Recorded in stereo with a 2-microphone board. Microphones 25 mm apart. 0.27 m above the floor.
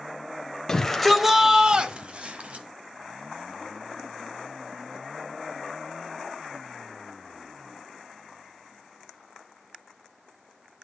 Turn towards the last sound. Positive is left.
turn(degrees=-55)  # may be behind; listen again after turning